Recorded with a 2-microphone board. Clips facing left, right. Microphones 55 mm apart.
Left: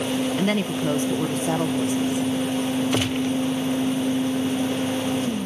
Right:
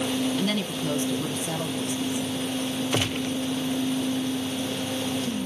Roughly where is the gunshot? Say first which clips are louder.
Left 4 dB; centre.